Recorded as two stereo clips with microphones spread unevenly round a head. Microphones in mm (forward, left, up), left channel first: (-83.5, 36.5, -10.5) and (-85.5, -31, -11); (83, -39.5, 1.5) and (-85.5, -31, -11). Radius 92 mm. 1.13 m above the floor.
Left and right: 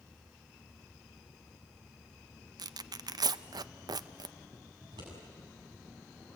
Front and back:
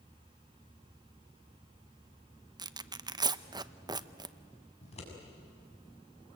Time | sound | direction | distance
2.6 | tearing paper | 115° right | 0.7 m
4.8 | scissors | 55° right | 6.5 m